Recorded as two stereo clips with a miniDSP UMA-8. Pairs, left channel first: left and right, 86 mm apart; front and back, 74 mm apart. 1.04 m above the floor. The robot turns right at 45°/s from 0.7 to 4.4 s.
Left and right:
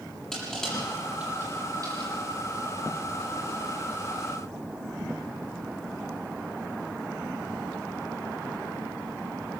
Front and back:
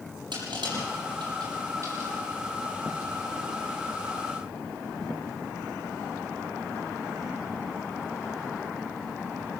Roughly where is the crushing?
Behind.